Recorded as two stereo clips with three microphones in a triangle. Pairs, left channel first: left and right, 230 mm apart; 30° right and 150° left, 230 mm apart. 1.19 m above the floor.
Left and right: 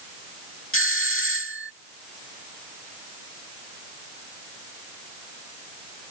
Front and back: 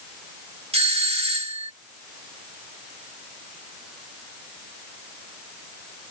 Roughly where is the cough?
I don't hear a cough.